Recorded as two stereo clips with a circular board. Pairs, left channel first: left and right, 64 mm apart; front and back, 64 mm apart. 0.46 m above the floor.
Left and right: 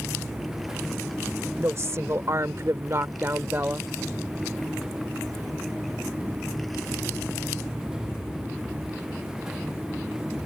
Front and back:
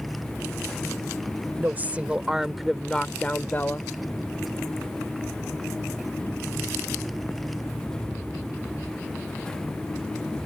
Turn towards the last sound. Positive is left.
turn(degrees=-40)